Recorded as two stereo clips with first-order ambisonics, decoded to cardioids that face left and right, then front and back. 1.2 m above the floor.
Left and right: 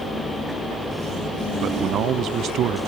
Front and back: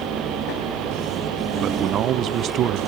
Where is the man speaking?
135° right.